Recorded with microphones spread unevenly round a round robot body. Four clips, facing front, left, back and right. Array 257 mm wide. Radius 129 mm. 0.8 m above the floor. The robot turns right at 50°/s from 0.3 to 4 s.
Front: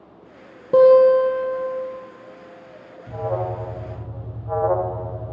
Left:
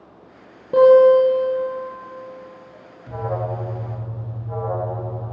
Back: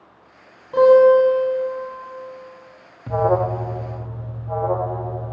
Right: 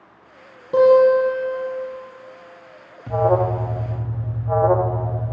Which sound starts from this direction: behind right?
An alarm, at 3.1 s.